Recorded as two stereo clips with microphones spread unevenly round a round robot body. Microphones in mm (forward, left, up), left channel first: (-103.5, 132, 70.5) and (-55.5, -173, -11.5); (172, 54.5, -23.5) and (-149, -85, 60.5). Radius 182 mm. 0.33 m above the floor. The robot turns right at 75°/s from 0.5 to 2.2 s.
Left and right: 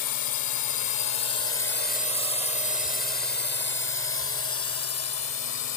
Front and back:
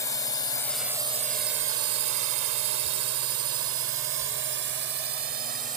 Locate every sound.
0.0 s a drone: 85° left; by 5.8 s 130° left